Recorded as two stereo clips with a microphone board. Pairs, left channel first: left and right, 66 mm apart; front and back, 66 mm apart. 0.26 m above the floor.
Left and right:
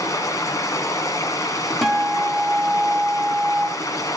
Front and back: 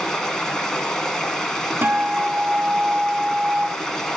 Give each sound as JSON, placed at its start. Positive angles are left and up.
{"t": 0.0, "sound": "running water", "azimuth_deg": 80, "distance_m": 1.9}
{"t": 1.8, "sound": "a guitar", "azimuth_deg": -175, "distance_m": 1.3}